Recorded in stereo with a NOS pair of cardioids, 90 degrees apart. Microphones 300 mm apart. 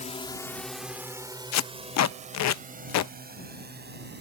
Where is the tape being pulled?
65° left.